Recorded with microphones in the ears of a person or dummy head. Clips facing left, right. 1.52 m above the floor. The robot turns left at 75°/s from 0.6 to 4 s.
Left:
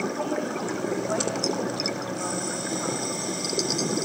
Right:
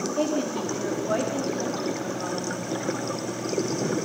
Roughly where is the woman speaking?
Right.